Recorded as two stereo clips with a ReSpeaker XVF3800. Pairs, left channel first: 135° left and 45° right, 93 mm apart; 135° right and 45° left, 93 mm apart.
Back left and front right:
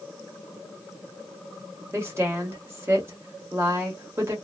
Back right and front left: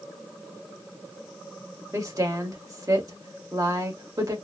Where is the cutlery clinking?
No cutlery clinking in this recording.